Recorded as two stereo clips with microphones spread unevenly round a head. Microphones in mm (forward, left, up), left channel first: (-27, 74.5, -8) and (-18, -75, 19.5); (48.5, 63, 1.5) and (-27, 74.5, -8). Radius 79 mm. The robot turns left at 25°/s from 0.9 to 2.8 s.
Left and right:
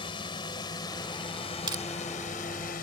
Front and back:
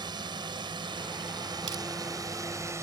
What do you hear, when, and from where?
0.0 s a drone: 150° left; by 2.8 s 120° left
1.7 s crushing: 145° right; by 1.8 s 150° right